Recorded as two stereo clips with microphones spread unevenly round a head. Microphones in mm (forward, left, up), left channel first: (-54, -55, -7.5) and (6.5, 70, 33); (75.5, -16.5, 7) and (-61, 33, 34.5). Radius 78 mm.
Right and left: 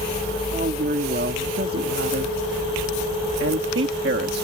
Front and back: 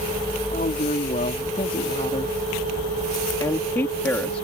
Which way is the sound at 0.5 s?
25° left.